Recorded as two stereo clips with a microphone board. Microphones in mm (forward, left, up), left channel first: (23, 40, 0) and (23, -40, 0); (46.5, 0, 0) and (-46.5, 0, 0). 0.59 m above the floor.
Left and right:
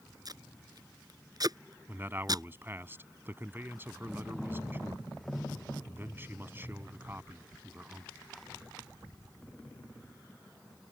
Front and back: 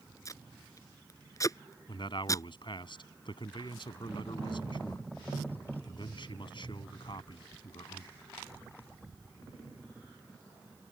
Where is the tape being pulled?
55° right.